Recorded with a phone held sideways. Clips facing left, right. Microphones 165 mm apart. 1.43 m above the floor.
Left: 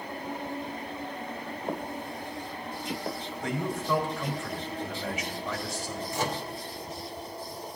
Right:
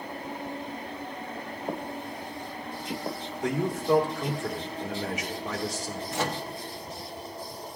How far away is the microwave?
About 1.0 m.